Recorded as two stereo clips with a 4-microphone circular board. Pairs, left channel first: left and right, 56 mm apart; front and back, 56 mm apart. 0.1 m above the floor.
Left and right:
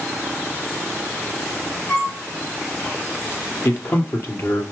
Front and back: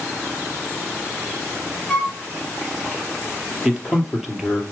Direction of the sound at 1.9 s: 65° left.